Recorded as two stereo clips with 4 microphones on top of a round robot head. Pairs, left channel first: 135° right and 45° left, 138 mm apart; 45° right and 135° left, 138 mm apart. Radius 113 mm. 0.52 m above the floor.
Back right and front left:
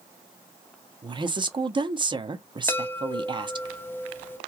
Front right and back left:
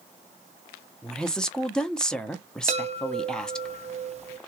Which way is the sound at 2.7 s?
155° left.